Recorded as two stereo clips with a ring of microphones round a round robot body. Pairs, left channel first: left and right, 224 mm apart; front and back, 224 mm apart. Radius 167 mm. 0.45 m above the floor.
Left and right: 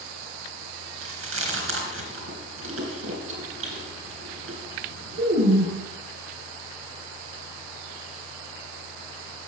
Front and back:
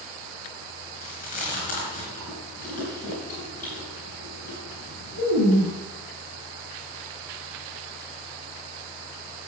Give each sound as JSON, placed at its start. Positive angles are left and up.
{"t": 1.0, "sound": "chewing", "azimuth_deg": -65, "distance_m": 4.0}